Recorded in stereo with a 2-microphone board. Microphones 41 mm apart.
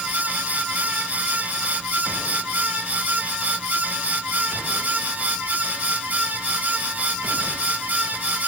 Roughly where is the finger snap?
I don't hear a finger snap.